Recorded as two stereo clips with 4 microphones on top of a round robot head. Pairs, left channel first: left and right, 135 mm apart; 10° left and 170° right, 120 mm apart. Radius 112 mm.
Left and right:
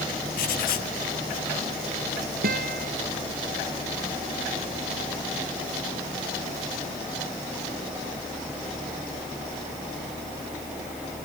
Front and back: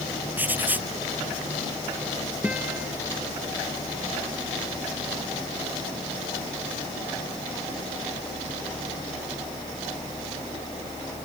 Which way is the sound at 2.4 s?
85° right.